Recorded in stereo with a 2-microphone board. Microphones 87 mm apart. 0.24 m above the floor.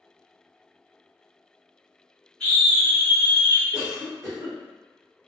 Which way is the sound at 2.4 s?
15° left (ahead or behind).